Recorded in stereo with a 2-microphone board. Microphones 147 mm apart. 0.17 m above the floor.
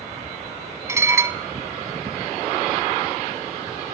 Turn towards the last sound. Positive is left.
turn(degrees=-20)  # may be behind; listen again after turning